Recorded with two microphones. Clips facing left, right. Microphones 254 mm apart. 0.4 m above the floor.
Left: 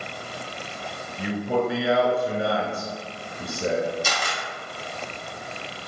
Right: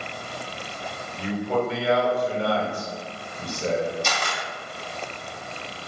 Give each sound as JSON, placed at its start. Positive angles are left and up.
{"t": 1.2, "sound": "a man speaking", "side_deg": 10, "distance_m": 1.3}
{"t": 4.0, "sound": "a camera shutter", "side_deg": 5, "distance_m": 1.1}